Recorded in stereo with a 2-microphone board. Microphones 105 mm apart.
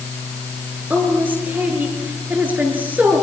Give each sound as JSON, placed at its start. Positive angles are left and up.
{"t": 0.9, "sound": "a woman speaking", "side_deg": -15, "distance_m": 5.5}